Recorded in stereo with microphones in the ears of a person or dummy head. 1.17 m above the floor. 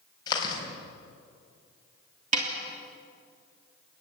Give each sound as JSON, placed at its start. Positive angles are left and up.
{"t": 0.3, "sound": "chewing", "side_deg": 25, "distance_m": 4.5}
{"t": 2.3, "sound": "a snare drum", "side_deg": -45, "distance_m": 3.0}